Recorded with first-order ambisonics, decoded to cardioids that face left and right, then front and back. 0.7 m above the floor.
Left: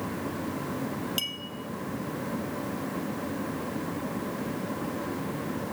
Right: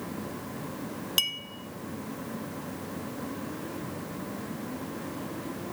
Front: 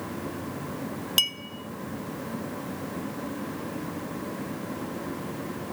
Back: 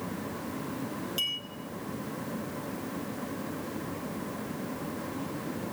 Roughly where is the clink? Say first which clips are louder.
Right 7 dB, front 7 dB; ahead right.